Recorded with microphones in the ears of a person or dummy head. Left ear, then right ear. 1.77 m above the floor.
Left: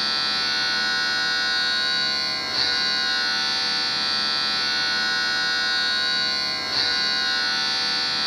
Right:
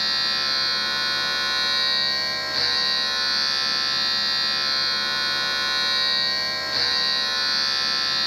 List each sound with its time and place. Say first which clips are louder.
0.0 s a machine running: even; 10° right (ahead or behind), 1.7 m